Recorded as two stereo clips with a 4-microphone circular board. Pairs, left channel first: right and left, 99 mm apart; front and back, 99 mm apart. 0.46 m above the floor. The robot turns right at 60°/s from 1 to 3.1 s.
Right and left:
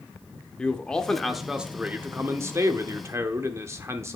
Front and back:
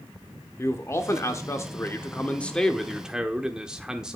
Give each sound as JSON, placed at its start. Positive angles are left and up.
{"t": 0.6, "sound": "a man speaking", "azimuth_deg": -20, "distance_m": 0.9}